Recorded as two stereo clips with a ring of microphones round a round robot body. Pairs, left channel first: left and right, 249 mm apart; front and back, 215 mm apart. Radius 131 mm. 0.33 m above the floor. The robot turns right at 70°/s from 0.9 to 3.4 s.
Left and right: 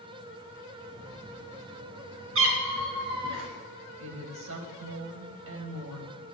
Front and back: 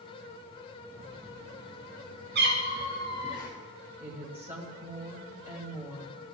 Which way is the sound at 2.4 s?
130° right.